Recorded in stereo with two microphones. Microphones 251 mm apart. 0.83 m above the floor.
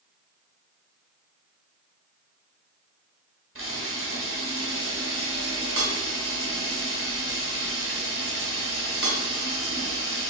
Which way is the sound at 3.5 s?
55° right (ahead or behind).